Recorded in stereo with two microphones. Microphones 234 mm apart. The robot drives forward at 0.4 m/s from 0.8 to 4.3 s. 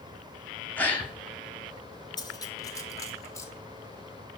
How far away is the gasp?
About 1.1 m.